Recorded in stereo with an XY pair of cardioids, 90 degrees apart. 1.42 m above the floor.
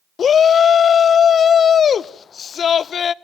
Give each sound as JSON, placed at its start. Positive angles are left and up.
{"t": 0.2, "sound": "a shout", "azimuth_deg": 55, "distance_m": 0.8}